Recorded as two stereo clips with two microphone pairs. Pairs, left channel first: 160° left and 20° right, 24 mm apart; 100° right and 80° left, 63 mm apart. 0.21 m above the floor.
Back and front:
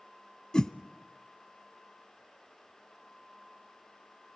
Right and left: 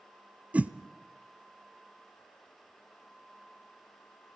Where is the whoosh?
125° left, 0.7 m.